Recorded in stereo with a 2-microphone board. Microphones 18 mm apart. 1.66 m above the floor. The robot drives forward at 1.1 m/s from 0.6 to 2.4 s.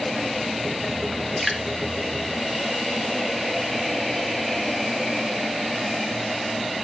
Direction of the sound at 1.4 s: Centre (ahead or behind).